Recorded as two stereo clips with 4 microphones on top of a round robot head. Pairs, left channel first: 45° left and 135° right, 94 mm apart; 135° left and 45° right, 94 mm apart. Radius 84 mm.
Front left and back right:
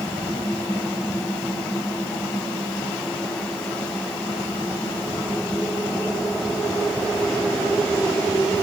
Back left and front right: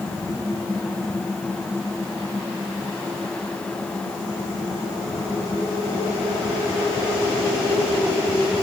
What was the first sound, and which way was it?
Only background noise.